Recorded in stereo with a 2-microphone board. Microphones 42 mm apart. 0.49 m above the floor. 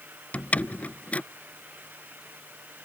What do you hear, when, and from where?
0.3 s a door slam: 35° left (ahead or behind)